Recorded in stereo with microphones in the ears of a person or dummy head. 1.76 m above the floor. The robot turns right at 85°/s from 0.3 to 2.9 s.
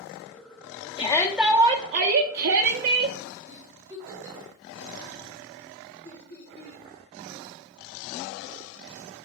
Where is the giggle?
20° right (ahead or behind), 4 m.